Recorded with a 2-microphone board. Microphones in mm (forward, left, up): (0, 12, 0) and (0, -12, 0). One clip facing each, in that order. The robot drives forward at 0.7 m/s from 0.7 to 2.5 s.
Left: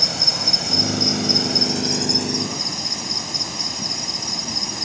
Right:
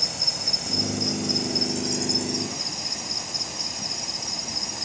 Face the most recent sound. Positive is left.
turn(degrees=30)  # may be behind; listen again after turning